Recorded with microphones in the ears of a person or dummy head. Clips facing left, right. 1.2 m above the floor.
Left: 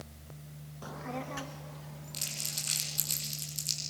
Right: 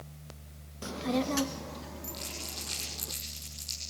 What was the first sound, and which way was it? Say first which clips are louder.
A child speaking: right 9 dB; 35° right (ahead or behind).